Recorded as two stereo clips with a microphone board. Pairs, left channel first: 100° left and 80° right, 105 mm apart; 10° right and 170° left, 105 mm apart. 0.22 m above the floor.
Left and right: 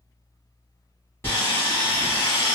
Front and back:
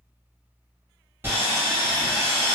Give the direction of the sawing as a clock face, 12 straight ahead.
8 o'clock.